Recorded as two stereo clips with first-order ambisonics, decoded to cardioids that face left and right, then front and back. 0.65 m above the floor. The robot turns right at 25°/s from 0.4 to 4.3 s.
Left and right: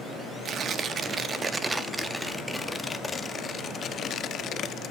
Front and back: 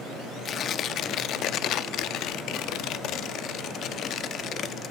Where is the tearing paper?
50° right, 0.6 m; by 4.9 s 45° left, 0.6 m.